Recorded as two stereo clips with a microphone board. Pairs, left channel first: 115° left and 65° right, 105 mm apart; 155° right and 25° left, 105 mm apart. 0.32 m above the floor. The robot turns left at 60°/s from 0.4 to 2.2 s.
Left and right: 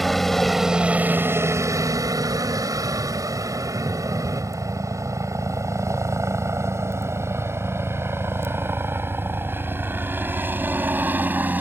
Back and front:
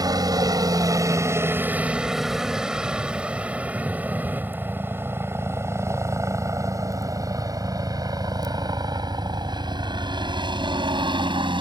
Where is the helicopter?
25° left; by 11.6 s straight ahead.